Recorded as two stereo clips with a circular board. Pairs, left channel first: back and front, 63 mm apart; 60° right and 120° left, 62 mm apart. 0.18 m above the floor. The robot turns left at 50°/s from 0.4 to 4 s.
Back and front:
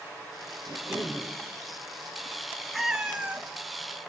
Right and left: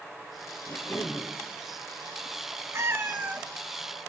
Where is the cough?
5° right, 4 m; by 1.3 s 40° right, 4 m.